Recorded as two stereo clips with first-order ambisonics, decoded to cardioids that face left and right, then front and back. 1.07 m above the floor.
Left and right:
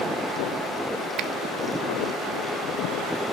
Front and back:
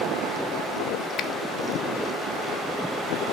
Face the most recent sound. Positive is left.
turn(degrees=-50)